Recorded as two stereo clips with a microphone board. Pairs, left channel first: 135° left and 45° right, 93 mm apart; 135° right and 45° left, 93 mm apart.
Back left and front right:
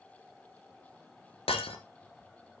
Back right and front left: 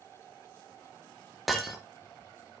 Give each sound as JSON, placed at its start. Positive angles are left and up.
{"t": 1.5, "sound": "breaking glass", "azimuth_deg": 135, "distance_m": 1.6}